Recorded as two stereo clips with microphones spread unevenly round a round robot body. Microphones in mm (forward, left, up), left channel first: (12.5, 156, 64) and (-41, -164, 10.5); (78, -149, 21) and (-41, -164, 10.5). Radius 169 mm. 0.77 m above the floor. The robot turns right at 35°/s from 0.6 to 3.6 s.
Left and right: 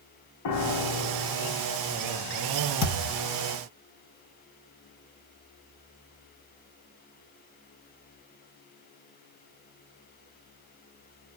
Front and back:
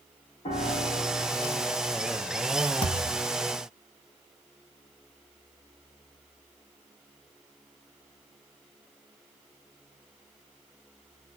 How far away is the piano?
About 0.6 m.